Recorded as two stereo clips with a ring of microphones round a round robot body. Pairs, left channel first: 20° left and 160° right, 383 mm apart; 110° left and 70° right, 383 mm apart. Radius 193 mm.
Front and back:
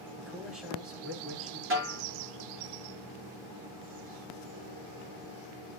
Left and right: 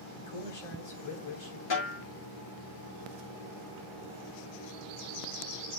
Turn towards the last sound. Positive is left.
turn(degrees=140)